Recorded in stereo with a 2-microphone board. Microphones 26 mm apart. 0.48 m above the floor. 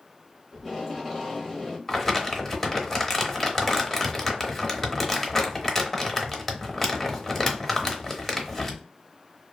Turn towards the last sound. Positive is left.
turn(degrees=5)  # may be behind; listen again after turning